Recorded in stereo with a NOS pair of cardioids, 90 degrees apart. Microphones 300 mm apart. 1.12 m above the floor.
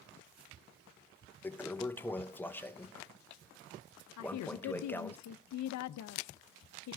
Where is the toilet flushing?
5° left, 0.8 m.